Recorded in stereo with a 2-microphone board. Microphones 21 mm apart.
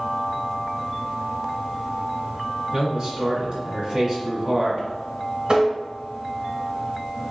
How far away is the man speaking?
About 1.7 m.